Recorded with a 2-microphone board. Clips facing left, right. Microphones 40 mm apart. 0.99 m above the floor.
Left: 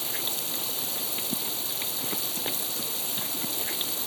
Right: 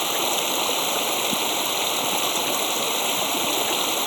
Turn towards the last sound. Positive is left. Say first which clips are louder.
# right 11 dB
turn(degrees=-65)  # may be behind; listen again after turning